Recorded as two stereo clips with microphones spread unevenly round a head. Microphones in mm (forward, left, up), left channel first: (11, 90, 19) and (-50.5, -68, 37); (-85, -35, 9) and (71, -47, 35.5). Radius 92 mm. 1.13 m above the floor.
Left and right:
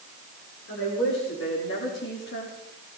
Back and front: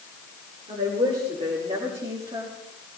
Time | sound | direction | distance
0.7 | a woman speaking | 50° left | 4.5 m